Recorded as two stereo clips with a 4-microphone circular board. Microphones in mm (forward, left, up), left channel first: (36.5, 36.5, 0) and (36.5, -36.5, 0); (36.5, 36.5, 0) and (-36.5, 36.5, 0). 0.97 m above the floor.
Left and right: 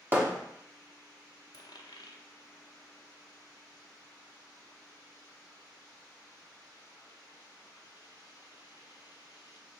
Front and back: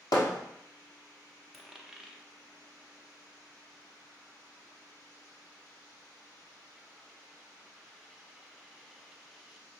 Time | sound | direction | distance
0.1 | hammering | 25° right | 1.0 m
1.5 | a dropped coin | 95° left | 0.6 m